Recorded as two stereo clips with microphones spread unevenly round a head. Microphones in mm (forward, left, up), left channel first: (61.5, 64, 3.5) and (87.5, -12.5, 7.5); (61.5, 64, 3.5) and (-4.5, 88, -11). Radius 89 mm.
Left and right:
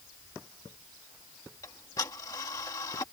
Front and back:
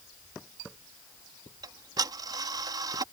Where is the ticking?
170° left.